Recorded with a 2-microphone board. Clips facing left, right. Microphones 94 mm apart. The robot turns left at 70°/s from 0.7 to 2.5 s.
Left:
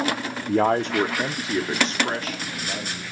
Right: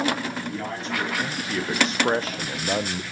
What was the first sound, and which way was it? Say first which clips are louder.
A man speaking: left 10 dB; 75° left.